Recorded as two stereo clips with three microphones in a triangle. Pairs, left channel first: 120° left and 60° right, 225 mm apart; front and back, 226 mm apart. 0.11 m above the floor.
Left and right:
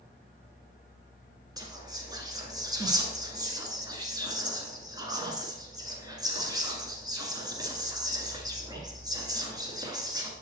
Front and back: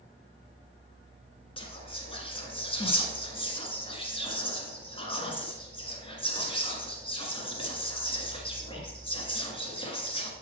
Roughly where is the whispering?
Ahead.